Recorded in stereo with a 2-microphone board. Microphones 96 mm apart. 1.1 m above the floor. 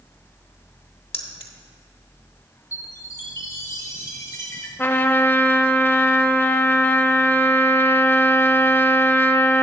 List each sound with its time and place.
1.1 s keys jangling: 75° left (ahead or behind), 1.2 m
2.7 s a chime: 35° left (ahead or behind), 1.4 m
4.8 s a trumpet: 25° left (ahead or behind), 0.6 m